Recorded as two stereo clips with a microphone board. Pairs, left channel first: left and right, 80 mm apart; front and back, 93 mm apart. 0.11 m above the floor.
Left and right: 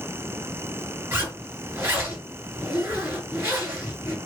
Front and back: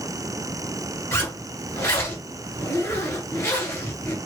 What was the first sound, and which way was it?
A zipper, 45° right.